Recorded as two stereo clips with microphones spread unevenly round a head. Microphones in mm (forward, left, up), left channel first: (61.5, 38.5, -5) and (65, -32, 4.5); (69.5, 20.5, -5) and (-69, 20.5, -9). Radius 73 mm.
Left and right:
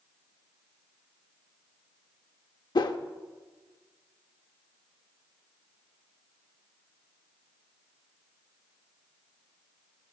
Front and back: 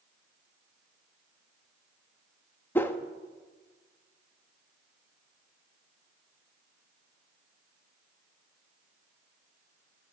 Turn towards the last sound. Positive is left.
turn(degrees=75)